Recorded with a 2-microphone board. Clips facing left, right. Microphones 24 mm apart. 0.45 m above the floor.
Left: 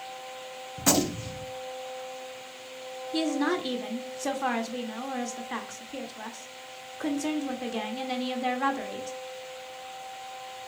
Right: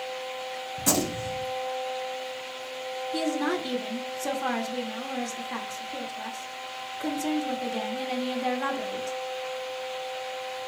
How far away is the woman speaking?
About 0.8 m.